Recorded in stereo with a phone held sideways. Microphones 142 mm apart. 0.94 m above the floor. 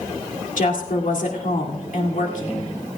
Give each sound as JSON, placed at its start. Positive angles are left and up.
{"t": 0.6, "sound": "a woman speaking", "side_deg": 65, "distance_m": 2.0}